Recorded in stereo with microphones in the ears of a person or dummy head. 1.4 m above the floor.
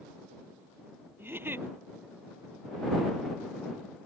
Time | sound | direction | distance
1.2 | a giggle | 5° right (ahead or behind) | ?